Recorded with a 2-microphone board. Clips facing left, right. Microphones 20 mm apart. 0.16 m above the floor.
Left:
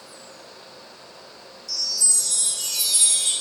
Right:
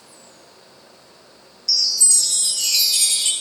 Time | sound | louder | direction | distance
1.7 | a chime | right 6 dB | 60° right (ahead or behind) | 0.8 m